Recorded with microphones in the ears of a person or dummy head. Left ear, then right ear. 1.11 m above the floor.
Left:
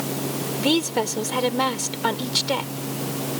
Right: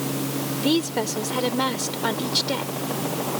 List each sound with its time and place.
0.6 s a woman speaking: 25° left (ahead or behind)